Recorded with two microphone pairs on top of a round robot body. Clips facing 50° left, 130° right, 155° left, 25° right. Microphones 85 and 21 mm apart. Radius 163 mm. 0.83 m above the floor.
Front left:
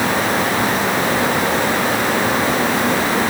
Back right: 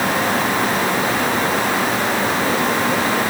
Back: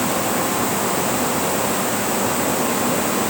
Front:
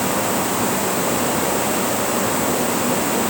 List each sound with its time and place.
Only background noise.